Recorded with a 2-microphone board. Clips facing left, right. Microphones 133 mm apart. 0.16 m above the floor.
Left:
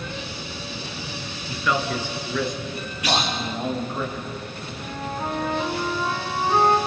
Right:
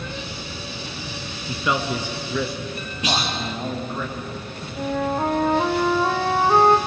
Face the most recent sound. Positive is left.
turn(degrees=-65)  # may be behind; listen again after turning